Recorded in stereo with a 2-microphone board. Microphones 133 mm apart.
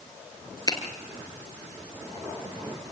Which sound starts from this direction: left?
A finger snap, at 0.7 s.